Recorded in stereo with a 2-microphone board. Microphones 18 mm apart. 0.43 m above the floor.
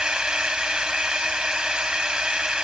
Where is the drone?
55° right (ahead or behind).